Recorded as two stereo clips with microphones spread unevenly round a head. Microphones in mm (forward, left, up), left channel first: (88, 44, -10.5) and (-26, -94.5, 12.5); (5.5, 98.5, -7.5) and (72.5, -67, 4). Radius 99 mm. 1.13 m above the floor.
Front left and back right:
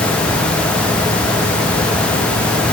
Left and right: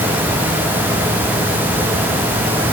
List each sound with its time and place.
Only background noise.